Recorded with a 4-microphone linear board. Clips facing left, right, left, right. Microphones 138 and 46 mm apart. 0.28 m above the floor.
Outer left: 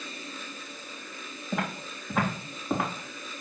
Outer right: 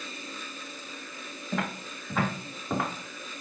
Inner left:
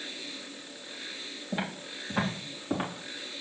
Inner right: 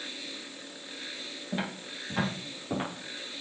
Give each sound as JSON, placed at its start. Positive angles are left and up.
{"t": 1.5, "sound": "footsteps", "side_deg": 10, "distance_m": 3.5}